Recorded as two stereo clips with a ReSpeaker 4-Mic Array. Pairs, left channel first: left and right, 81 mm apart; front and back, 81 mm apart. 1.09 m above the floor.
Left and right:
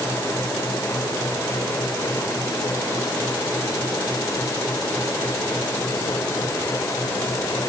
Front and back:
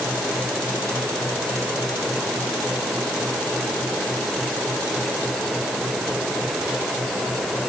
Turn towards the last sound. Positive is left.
No sound to turn to.